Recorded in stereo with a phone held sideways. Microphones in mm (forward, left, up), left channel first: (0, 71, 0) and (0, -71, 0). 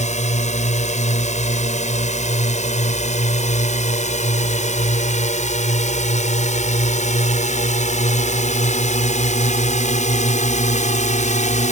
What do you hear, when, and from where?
0.0 s a drone: 55° left (ahead or behind); by 11.7 s 60° left (ahead or behind)